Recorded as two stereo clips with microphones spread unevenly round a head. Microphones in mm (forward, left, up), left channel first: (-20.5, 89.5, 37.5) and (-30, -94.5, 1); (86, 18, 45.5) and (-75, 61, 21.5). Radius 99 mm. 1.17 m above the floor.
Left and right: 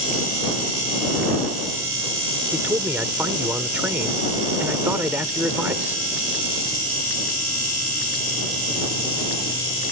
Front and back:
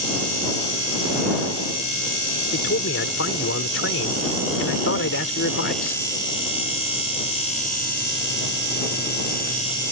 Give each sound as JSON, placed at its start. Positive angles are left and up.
{"t": 2.5, "sound": "a man speaking", "azimuth_deg": -10}